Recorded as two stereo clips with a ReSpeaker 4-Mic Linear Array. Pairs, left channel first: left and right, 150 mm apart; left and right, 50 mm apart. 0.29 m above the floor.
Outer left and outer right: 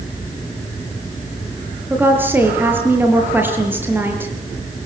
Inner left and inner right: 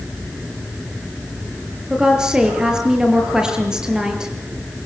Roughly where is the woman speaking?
Centre.